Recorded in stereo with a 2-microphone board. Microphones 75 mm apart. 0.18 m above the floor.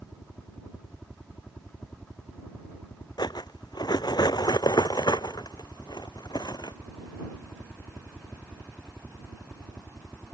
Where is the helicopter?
15° left (ahead or behind); by 10.3 s 10° left (ahead or behind).